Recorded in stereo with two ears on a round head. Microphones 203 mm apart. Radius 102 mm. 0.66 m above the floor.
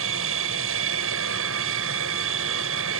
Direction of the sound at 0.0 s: 65° right (ahead or behind).